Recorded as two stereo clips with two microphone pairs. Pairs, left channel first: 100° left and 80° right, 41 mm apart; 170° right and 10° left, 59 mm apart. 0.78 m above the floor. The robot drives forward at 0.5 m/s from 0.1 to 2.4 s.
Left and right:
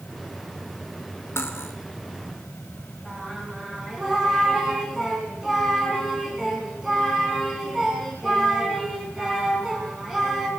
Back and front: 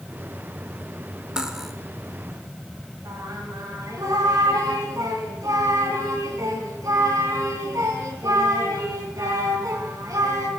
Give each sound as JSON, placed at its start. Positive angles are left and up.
{"t": 1.4, "sound": "cutlery clinking", "azimuth_deg": 85, "distance_m": 1.1}
{"t": 3.0, "sound": "singing", "azimuth_deg": 0, "distance_m": 3.0}